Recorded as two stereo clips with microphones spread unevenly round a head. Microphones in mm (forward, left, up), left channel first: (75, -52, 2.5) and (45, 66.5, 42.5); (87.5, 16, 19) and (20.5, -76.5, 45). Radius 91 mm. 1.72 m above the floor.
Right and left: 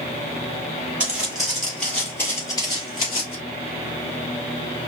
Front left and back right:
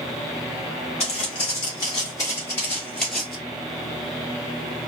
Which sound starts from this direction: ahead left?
Footsteps, at 1.0 s.